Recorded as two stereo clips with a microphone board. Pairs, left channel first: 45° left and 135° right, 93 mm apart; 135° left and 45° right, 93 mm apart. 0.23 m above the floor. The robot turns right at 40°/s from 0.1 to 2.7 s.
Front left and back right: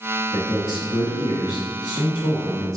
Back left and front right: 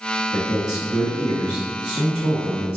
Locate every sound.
0.3 s a man speaking: 30° left, 2.0 m; by 2.8 s 125° left, 2.0 m